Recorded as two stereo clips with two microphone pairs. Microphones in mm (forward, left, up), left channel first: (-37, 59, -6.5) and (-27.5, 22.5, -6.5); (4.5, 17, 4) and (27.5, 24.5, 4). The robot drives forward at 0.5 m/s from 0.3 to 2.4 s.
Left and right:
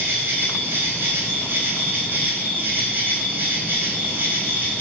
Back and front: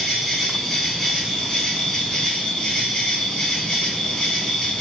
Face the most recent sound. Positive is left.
turn(degrees=-125)